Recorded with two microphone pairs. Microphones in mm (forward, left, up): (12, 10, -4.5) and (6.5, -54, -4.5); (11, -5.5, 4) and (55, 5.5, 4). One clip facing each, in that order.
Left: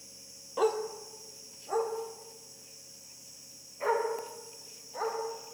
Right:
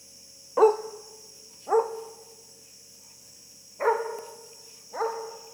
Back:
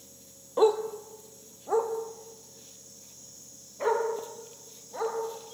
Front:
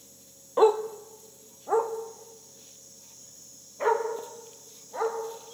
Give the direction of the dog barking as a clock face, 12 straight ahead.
1 o'clock.